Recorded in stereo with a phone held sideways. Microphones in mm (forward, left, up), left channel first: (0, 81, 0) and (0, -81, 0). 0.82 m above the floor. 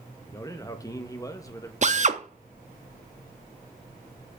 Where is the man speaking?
20° left (ahead or behind), 0.9 m.